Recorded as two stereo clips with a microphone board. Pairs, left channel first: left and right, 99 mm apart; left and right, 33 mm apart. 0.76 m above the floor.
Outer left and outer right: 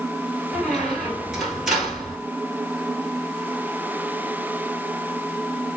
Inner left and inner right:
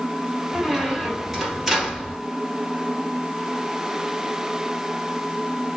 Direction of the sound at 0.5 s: 5° right (ahead or behind).